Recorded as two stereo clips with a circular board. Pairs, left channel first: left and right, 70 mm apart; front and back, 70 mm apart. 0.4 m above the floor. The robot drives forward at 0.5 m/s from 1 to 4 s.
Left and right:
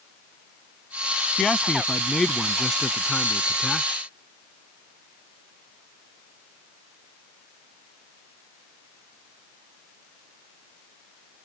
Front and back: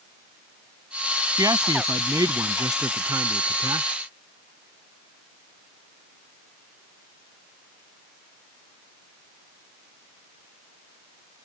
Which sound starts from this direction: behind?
A man speaking, at 1.4 s.